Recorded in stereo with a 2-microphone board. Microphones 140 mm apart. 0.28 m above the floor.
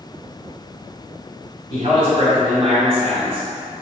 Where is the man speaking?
45° right (ahead or behind), 1.7 m.